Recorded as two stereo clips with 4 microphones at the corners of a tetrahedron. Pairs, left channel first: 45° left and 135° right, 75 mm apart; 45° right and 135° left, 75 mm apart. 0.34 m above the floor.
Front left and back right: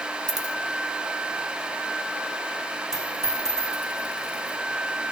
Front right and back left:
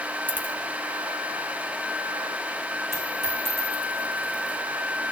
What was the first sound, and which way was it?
A dropped coin, 160° right.